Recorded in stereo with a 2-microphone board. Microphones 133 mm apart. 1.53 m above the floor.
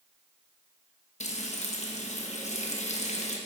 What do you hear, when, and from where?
1.2 s frying: 60° left (ahead or behind), 1.2 m